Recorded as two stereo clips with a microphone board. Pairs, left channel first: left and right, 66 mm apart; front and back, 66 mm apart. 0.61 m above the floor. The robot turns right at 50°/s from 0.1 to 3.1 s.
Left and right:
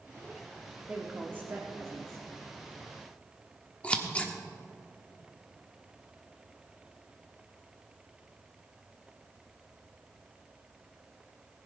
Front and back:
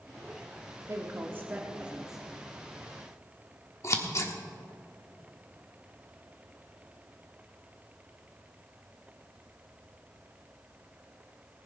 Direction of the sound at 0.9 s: 160° right.